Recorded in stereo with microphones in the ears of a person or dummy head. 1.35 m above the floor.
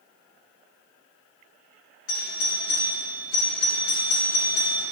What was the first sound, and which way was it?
A doorbell, 65° left (ahead or behind).